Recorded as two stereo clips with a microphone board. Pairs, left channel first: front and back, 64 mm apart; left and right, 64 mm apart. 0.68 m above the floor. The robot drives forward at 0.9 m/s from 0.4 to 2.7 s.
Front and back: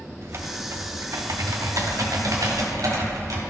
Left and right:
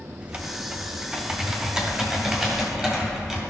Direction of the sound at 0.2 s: 160° right.